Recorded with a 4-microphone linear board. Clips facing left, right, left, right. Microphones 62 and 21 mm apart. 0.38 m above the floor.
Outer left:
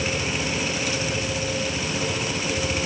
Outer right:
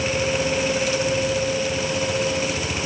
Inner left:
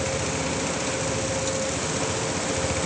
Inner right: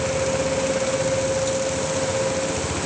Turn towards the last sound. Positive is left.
No sound to turn to.